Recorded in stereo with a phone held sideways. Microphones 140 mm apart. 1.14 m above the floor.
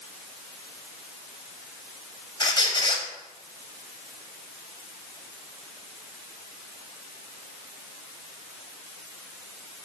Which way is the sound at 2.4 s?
35° left (ahead or behind).